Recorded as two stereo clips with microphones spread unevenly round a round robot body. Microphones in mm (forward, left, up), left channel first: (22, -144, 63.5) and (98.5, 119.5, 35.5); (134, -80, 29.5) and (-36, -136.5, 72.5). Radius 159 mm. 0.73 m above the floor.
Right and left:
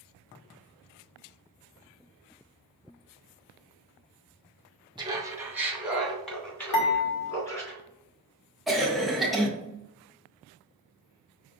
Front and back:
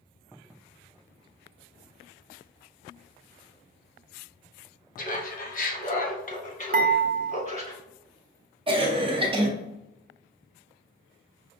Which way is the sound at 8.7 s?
150° left.